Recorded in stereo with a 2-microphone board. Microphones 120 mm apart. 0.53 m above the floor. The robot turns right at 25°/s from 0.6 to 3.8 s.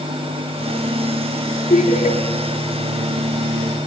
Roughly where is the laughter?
Left.